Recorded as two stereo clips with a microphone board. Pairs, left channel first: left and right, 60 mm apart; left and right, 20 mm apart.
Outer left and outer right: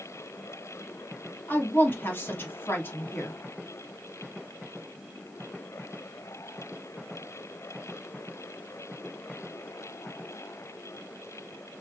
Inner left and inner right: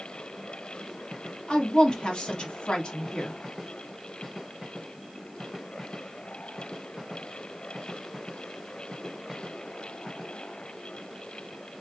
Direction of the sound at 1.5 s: 40° left (ahead or behind).